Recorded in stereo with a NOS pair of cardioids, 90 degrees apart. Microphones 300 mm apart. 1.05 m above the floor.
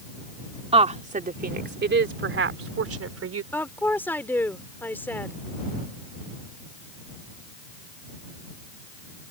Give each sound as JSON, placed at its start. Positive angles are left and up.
{"t": 0.7, "sound": "a woman speaking", "azimuth_deg": -20}
{"t": 3.5, "sound": "a woman speaking", "azimuth_deg": 5}